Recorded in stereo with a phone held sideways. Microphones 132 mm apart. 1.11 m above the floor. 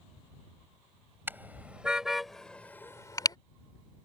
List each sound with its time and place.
1.3 s a car horn: 15° right (ahead or behind); by 3.4 s 35° left (ahead or behind)